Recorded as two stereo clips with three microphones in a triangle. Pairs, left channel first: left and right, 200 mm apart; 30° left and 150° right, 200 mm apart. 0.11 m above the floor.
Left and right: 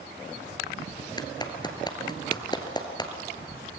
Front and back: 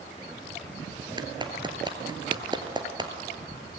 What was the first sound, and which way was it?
A clap, 150° left.